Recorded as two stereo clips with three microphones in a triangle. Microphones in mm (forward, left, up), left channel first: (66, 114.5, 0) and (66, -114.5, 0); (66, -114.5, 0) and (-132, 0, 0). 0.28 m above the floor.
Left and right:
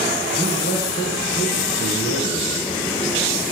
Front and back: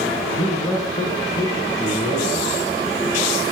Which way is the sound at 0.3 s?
40° left.